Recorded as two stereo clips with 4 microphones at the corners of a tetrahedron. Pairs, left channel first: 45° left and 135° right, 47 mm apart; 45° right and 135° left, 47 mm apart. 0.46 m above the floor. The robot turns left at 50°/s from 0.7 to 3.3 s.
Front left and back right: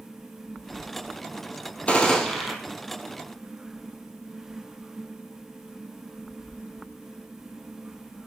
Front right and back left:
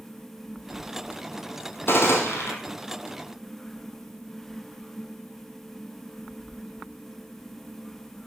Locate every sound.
1.9 s a gunshot: 15° right, 2.5 m; by 2.5 s 45° right, 2.5 m